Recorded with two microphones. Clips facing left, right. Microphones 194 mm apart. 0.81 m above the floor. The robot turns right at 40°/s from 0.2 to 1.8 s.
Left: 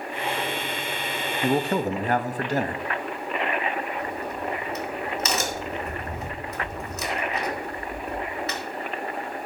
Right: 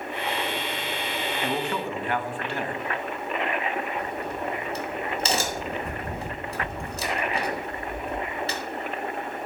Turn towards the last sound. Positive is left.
turn(degrees=-30)  # may be behind; listen again after turning